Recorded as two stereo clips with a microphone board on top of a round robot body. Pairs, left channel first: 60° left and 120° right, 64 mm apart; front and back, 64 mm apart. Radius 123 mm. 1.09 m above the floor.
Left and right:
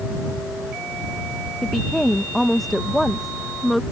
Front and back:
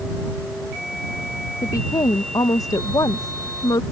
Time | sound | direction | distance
1.6 | a woman speaking | 30° right | ?